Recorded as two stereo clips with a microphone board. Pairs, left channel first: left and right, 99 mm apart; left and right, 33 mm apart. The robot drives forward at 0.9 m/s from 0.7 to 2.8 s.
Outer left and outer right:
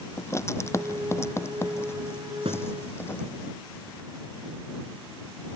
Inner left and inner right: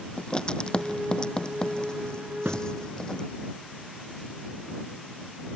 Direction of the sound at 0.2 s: 30° left (ahead or behind).